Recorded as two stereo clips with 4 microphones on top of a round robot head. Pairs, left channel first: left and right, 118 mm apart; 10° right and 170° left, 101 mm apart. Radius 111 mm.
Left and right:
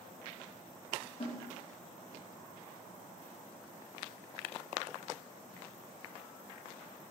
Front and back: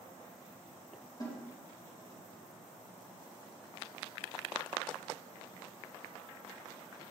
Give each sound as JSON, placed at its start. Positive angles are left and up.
{"t": 1.2, "sound": "a snare drum", "azimuth_deg": 40, "distance_m": 2.5}